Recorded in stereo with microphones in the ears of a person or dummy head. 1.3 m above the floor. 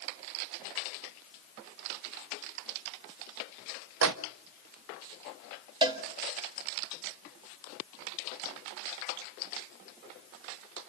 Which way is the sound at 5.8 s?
30° right (ahead or behind).